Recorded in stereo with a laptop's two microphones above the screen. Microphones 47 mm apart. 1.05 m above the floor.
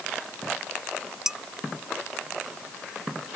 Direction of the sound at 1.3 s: 10° right (ahead or behind).